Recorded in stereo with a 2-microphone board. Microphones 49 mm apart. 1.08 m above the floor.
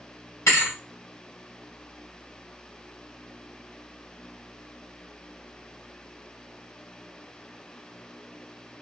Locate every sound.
0.5 s a thud: 70° left (ahead or behind), 1.9 m